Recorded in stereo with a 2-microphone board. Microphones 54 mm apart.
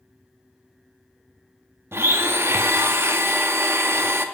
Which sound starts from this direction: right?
A blender, at 1.9 s.